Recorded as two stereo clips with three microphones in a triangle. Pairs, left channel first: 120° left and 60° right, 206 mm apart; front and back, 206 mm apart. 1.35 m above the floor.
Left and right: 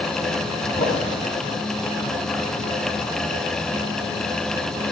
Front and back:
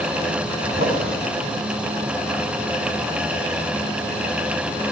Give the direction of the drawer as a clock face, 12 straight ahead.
6 o'clock.